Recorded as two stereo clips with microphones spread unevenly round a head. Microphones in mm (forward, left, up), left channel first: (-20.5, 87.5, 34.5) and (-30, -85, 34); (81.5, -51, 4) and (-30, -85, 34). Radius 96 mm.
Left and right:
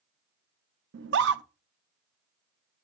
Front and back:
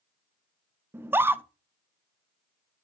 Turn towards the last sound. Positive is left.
turn(degrees=-85)